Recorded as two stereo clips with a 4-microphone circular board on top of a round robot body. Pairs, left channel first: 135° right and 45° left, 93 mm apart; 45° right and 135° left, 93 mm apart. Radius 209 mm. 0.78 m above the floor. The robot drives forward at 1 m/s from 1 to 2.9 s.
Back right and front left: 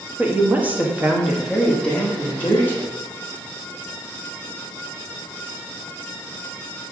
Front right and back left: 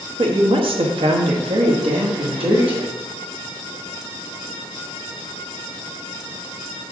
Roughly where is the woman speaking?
Behind left.